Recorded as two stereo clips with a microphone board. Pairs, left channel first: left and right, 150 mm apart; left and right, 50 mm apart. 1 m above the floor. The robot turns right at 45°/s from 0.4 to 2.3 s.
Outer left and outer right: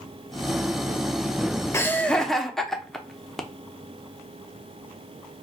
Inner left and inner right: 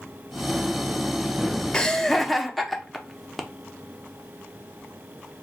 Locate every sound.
1.7 s laughter: 15° left (ahead or behind), 0.6 m; by 3.4 s centre (ahead or behind), 0.6 m